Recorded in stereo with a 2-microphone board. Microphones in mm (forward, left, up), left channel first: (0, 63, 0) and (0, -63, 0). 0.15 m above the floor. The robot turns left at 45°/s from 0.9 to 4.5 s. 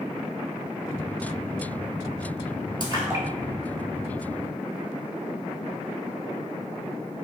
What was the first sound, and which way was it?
A splash, 35° right (ahead or behind).